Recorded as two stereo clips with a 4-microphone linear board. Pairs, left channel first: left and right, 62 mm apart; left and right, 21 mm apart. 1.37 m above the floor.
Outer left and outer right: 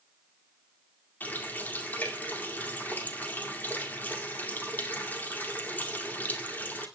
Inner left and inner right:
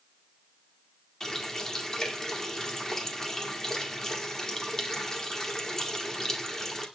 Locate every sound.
1.2 s a running tap: 30° left (ahead or behind), 2 m